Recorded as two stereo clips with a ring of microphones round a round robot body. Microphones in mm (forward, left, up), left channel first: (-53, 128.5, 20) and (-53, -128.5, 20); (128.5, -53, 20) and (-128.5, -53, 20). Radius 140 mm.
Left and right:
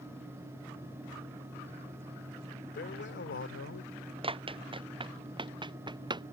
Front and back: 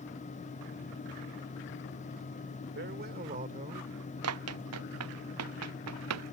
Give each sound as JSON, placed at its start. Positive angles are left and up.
{"t": 2.8, "sound": "a man speaking", "azimuth_deg": 135}
{"t": 4.2, "sound": "running footsteps", "azimuth_deg": -160}